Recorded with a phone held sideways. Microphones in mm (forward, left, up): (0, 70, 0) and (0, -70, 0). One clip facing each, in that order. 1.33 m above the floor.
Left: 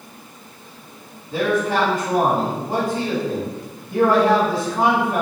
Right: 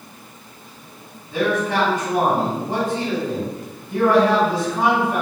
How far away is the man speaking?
About 1.6 m.